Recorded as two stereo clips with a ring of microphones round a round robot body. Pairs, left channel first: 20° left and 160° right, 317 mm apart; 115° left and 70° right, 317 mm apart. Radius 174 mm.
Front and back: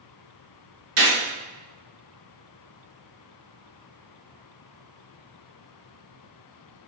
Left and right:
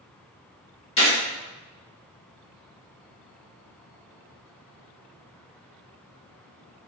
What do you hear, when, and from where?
1.0 s a gunshot: 175° right, 1.0 m